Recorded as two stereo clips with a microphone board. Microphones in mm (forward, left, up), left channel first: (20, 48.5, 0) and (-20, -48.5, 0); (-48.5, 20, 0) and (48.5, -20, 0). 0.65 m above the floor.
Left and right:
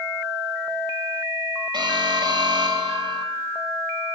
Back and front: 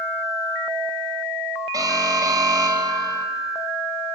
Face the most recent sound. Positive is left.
turn(degrees=-75)